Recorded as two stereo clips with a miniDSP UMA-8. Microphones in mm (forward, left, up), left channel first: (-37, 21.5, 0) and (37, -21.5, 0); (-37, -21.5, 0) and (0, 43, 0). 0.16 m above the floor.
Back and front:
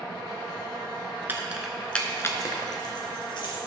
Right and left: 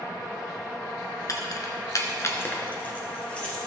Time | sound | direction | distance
1.3 | keys jangling | 90° right | 1.2 m